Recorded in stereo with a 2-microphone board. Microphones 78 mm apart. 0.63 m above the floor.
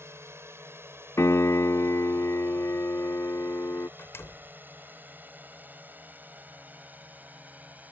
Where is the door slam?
35° left (ahead or behind).